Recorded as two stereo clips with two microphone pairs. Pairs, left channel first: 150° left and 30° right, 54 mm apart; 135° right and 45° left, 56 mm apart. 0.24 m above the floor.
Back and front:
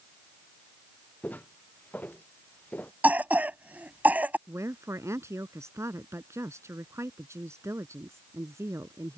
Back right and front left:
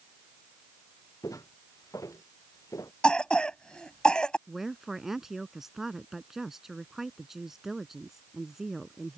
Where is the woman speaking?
35° right.